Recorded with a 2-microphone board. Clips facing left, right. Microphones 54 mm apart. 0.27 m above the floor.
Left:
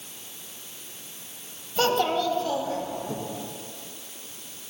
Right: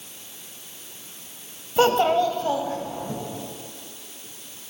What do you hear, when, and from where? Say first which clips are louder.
1.8 s a child speaking: right 5 dB; 25° right (ahead or behind), 0.6 m; by 3.1 s 35° right (ahead or behind), 1.1 m